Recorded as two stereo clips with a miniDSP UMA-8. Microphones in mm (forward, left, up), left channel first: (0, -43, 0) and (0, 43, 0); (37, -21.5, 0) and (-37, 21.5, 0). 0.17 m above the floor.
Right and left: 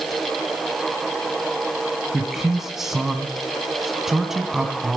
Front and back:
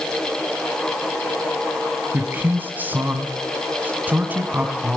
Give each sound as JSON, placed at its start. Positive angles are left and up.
{"t": 2.1, "sound": "a man speaking", "azimuth_deg": 170, "distance_m": 1.5}